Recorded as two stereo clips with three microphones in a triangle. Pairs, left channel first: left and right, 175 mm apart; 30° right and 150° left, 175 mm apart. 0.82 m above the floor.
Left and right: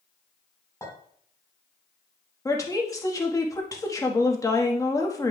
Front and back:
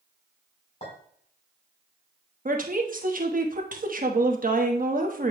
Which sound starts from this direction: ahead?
A clink, at 0.8 s.